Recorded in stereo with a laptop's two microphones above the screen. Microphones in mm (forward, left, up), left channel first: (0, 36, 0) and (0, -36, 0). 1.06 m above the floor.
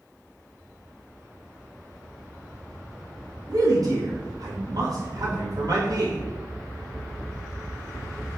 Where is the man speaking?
60° right (ahead or behind), 0.9 m.